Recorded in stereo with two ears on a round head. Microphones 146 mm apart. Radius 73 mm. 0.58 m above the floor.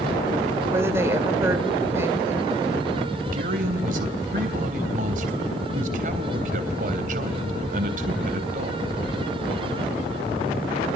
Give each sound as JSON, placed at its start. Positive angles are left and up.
{"t": 0.7, "sound": "a woman speaking", "side_deg": -15, "distance_m": 2.5}
{"t": 3.3, "sound": "a man speaking", "side_deg": -55, "distance_m": 3.0}